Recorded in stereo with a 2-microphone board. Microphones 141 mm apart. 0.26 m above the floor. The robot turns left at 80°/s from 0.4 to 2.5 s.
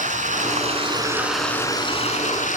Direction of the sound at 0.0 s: 100° right.